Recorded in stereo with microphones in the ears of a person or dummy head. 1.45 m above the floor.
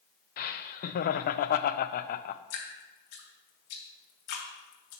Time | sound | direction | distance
0.4 | laughter | 45° left (ahead or behind) | 0.5 m
2.5 | dripping | 65° left (ahead or behind) | 1.9 m